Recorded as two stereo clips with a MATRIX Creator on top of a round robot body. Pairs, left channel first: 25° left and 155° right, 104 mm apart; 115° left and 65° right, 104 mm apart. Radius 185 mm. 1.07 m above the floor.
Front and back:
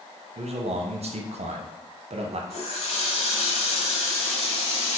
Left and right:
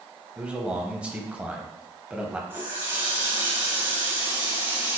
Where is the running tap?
5° left, 1.2 m.